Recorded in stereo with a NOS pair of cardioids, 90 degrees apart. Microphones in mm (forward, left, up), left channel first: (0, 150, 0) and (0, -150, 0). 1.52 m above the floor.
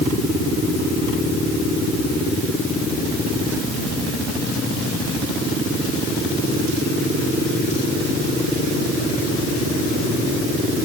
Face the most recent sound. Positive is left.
No sound to turn to.